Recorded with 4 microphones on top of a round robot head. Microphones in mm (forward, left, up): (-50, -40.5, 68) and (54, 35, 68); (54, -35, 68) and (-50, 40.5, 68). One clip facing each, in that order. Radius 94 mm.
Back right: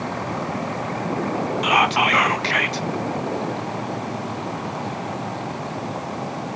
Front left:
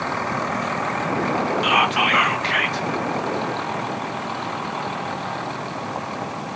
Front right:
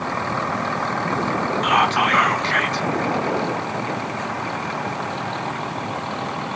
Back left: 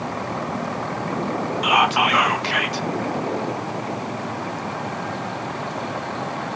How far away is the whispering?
About 0.6 m.